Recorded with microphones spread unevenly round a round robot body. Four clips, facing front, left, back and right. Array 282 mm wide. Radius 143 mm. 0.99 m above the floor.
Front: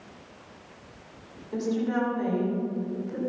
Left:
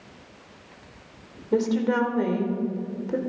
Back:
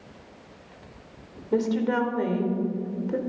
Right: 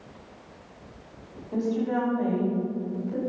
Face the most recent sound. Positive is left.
turn(degrees=115)